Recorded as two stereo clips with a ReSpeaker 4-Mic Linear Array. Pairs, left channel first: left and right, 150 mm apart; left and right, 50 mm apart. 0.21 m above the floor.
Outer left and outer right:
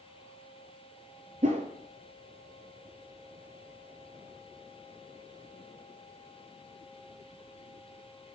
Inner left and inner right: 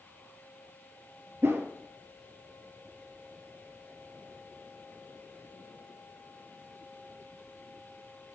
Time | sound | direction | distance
1.4 | a whoosh | 50° right (ahead or behind) | 0.6 m